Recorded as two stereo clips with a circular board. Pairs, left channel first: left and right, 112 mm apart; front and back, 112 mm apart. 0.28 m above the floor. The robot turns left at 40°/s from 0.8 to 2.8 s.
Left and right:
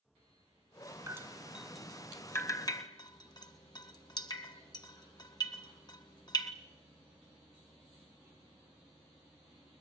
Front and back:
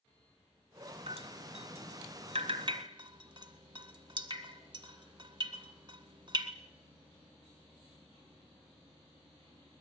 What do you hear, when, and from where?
1.1 s dripping: 155° right, 1.6 m; by 6.5 s 135° left, 1.6 m